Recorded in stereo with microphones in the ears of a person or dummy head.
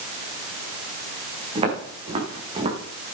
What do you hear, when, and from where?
1.6 s footsteps: 30° right (ahead or behind), 8 m